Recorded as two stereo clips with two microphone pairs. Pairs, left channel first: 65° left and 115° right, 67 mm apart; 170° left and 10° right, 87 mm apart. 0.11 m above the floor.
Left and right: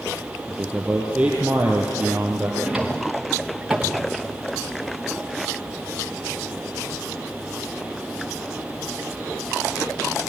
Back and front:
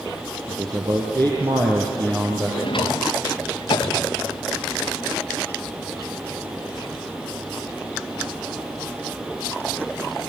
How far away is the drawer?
About 2.5 m.